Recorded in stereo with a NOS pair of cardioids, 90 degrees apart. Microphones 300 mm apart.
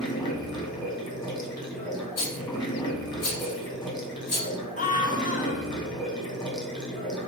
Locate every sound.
0.0 s running water: 15° left, 1.2 m
2.2 s a rattle: 60° left, 1.9 m
4.8 s a scream: 25° left, 0.8 m